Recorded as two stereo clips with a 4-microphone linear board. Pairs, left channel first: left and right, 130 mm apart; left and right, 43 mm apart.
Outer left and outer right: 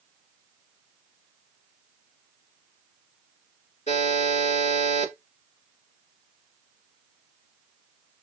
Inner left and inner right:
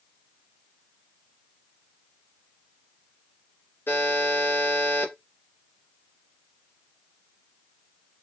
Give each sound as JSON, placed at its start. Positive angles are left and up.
{"t": 3.9, "sound": "a buzzer", "side_deg": 60, "distance_m": 2.0}